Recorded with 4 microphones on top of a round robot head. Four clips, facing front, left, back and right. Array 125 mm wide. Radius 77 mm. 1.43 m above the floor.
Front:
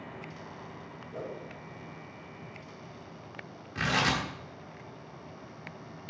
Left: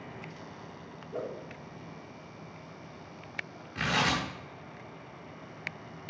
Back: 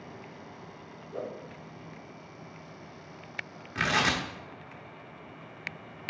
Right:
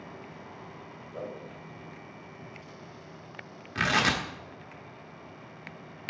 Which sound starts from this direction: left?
A whoosh, at 1.1 s.